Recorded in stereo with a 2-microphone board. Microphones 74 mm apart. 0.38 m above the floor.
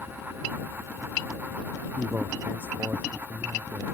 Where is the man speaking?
25° right (ahead or behind); by 3.9 s 35° right (ahead or behind).